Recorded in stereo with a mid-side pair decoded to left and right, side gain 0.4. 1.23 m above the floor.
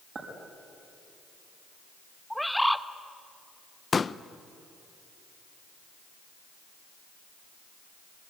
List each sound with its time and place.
0.1 s a clink: 45° right, 6 m
2.3 s a bird: straight ahead, 1.1 m
3.9 s a pop: 40° left, 0.7 m